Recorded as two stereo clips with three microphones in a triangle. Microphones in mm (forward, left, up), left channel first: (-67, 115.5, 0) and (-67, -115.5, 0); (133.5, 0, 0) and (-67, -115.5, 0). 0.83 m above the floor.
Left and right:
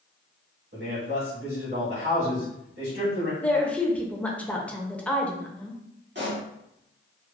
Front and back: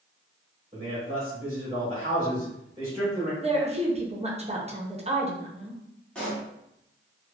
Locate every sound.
0.7 s a man speaking: 90° right, 1.6 m
3.4 s a woman speaking: 170° left, 0.5 m
6.2 s a pop: 55° right, 1.3 m